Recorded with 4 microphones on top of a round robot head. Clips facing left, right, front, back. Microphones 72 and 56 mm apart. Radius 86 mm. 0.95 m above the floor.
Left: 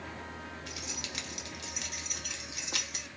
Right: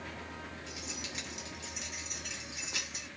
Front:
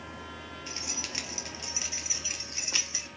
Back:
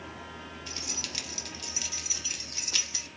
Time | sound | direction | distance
0.7 | keys jangling | 60° left | 1.4 m